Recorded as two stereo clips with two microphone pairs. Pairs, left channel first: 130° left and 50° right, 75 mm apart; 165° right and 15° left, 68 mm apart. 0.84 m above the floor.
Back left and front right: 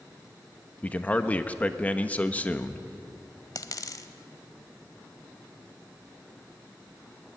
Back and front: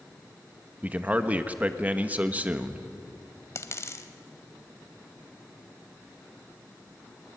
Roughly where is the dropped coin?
Behind left.